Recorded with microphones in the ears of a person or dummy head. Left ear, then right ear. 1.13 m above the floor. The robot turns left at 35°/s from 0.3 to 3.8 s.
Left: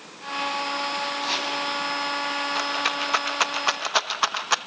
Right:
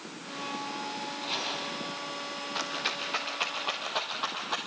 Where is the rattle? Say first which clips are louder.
Left 4 dB; 20° left (ahead or behind), 1.1 m; by 4.6 s 65° left (ahead or behind), 1.1 m.